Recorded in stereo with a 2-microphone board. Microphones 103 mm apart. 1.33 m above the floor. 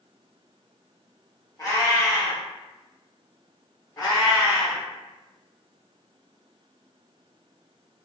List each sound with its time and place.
1.6 s a cat meowing: 35° left (ahead or behind), 0.9 m
4.0 s a cat meowing: 35° left (ahead or behind), 1.2 m